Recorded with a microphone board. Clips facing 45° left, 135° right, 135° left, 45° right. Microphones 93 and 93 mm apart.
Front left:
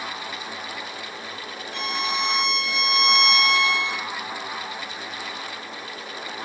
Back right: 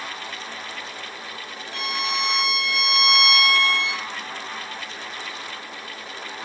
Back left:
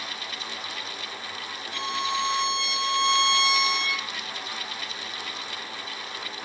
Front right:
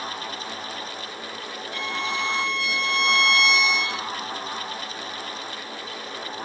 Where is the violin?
165° right, 3 m.